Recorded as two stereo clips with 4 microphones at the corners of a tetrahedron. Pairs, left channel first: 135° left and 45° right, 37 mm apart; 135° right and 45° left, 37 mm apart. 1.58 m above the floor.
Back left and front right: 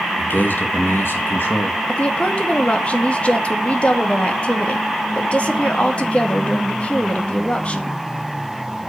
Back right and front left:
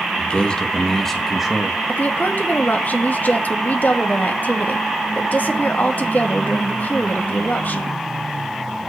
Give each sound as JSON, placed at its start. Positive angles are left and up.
{"t": 0.2, "sound": "a man speaking", "azimuth_deg": 170, "distance_m": 2.0}
{"t": 1.9, "sound": "a woman speaking", "azimuth_deg": -170, "distance_m": 2.5}